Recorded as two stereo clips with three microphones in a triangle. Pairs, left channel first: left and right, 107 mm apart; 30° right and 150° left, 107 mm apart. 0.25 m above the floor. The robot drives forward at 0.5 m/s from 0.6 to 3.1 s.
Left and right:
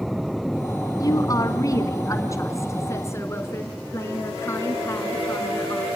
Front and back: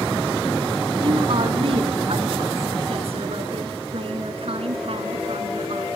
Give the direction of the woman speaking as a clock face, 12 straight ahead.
7 o'clock.